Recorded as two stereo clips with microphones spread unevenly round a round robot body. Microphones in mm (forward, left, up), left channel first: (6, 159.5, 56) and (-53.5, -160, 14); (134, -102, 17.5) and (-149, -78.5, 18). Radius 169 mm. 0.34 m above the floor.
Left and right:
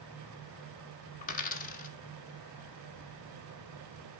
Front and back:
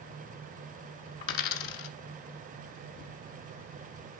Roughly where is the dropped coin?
Ahead.